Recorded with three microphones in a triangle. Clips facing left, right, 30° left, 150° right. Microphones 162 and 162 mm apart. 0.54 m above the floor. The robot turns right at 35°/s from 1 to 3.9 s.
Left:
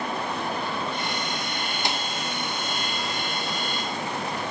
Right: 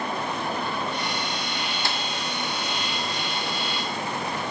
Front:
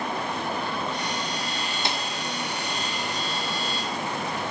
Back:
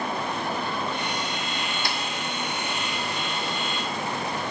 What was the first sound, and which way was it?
A snare drum, 50° left.